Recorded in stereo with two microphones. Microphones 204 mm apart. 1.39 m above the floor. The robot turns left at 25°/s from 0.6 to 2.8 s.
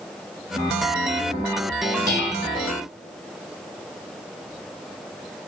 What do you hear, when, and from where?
2.1 s dishes clattering: 50° right (ahead or behind), 3 m; by 2.6 s 60° right (ahead or behind), 3 m